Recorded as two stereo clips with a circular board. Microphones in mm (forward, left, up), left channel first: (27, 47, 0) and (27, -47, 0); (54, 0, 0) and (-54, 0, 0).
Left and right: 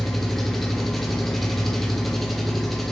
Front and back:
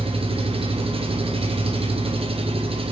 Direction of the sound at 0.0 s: Straight behind.